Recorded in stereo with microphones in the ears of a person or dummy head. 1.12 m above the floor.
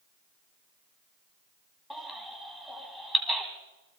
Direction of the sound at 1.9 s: Centre (ahead or behind).